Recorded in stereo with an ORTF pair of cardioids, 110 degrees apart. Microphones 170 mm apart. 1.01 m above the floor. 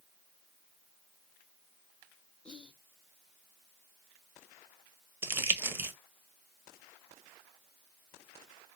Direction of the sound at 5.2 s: 15° right.